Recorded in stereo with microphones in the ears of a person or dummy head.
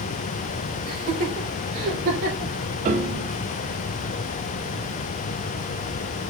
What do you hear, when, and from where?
0.9 s laughter: 55° right (ahead or behind), 5 m
2.9 s a piano: 45° right (ahead or behind), 0.7 m